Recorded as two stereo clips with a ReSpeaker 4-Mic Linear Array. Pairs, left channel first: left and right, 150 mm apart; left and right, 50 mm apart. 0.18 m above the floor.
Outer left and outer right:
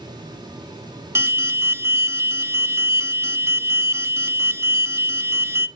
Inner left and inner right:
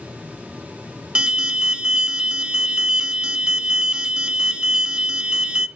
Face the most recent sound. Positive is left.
turn(degrees=-20)  # may be behind; listen again after turning